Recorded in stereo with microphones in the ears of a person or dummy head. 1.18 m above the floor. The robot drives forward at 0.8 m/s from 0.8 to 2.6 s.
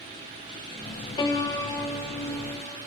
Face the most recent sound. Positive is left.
turn(degrees=15)  # may be behind; listen again after turning